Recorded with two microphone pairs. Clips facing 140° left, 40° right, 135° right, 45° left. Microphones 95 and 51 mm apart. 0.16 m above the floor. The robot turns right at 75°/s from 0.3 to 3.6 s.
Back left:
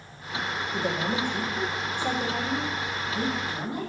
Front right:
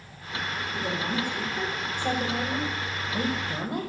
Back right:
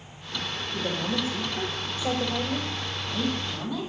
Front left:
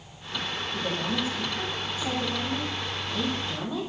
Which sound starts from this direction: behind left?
A woman speaking, at 0.7 s.